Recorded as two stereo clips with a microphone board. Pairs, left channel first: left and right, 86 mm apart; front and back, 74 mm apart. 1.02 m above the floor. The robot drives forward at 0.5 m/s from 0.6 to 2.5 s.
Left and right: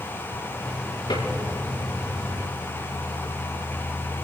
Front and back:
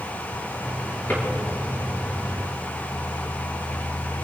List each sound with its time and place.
1.1 s a drawer: 65° left, 5.5 m